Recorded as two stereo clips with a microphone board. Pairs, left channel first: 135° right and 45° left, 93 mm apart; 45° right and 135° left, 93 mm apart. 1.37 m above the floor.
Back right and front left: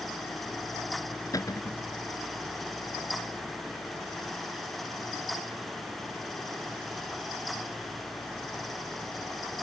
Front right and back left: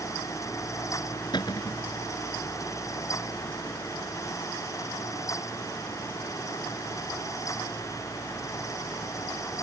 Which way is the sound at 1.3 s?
85° right.